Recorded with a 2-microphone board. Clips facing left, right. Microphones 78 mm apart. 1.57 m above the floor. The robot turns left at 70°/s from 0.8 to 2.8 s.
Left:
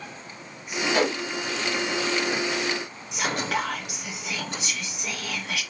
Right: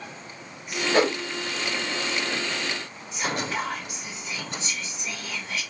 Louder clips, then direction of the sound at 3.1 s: Left 2 dB; 65° left (ahead or behind).